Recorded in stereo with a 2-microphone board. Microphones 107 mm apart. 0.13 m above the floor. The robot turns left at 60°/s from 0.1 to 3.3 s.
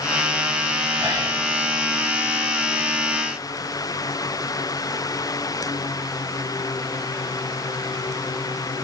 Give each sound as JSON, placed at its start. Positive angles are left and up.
{"t": 1.0, "sound": "whispering", "side_deg": -35, "distance_m": 1.3}